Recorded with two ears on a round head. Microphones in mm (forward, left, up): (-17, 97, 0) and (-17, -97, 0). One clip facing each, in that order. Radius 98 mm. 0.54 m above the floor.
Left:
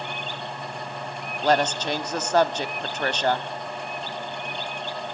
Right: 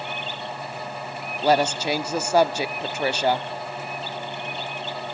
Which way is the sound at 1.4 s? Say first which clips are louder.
Right 2 dB; 10° right (ahead or behind).